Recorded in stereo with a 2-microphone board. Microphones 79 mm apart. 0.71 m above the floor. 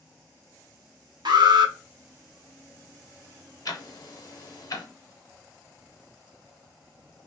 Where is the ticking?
50° left (ahead or behind), 0.6 m.